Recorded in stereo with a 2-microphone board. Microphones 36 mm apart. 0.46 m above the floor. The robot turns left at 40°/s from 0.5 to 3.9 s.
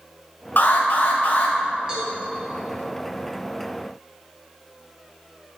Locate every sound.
0.6 s an alarm: 100° left, 2 m; by 1.6 s 60° left, 2 m
1.9 s a cowbell: 20° right (ahead or behind), 3 m; by 2.1 s 30° right (ahead or behind), 3 m